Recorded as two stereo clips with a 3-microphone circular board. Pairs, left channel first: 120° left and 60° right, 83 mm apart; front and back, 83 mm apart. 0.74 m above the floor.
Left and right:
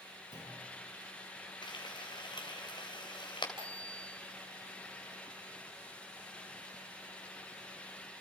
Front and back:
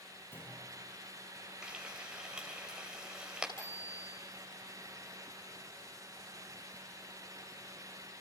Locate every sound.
0.3 s a clunk: 60° right, 9.5 m
1.6 s frying: 100° left, 3 m
3.6 s a bicycle bell: 55° left, 8.5 m